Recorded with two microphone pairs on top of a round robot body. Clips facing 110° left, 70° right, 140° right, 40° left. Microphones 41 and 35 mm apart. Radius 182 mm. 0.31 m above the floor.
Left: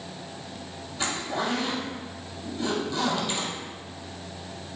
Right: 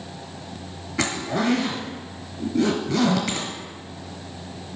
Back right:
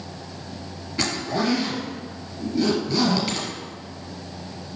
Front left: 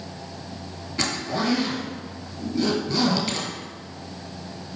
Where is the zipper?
45° right, 1.7 m.